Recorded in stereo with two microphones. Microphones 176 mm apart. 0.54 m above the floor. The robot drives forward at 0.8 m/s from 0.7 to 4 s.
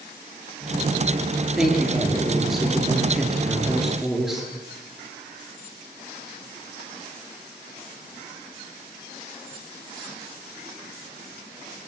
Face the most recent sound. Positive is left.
turn(degrees=0)  # may be behind; listen again after turning